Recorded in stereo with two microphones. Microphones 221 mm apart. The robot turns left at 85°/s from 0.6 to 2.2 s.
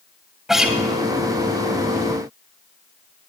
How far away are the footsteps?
No footsteps in this recording.